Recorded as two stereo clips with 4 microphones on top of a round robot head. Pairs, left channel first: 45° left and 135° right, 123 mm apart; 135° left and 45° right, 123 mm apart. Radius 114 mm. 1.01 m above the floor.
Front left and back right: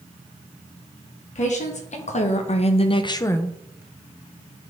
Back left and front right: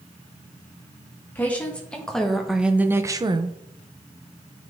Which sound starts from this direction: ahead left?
A woman speaking, at 1.4 s.